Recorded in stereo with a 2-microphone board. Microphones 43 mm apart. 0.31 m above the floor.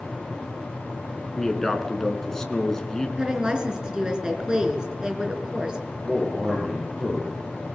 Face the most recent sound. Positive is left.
turn(degrees=10)  # may be behind; listen again after turning